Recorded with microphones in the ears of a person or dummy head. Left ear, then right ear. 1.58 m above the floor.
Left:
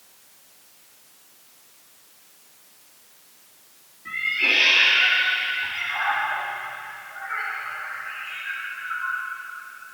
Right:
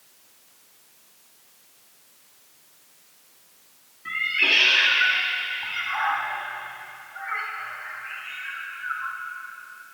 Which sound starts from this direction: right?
A cat meowing, at 4.0 s.